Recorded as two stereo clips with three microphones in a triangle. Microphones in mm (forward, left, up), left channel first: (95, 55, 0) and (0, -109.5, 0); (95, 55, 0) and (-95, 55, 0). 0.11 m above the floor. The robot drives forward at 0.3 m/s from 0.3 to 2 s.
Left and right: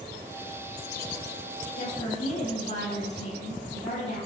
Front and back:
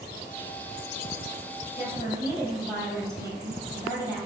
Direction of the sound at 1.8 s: 105° left.